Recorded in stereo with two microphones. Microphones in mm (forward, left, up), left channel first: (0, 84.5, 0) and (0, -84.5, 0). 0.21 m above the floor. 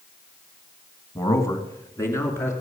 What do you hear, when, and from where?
1.1 s a man speaking: 20° left (ahead or behind), 1.8 m; by 2.5 s 15° left (ahead or behind), 3.5 m